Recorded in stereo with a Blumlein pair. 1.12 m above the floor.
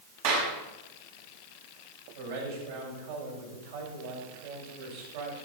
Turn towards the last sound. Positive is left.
turn(degrees=-55)